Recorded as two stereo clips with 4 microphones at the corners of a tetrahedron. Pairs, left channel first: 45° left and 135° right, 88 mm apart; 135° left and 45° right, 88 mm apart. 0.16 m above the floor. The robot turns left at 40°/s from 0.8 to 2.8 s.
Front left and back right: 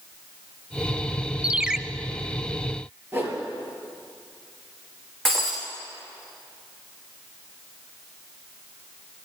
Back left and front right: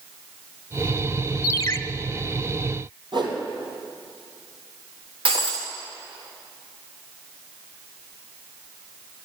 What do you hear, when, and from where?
1.4 s a ringtone: 155° left, 0.5 m; by 1.8 s 140° left, 0.5 m
3.1 s a whoosh: 70° right, 3.5 m
5.2 s breaking glass: 40° right, 3 m